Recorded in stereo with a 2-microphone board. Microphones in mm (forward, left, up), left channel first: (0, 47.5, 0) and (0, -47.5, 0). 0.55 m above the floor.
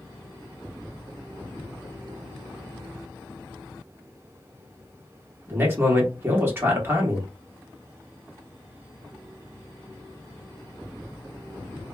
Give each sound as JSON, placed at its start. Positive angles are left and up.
{"t": 5.5, "sound": "a man speaking", "side_deg": -25, "distance_m": 1.2}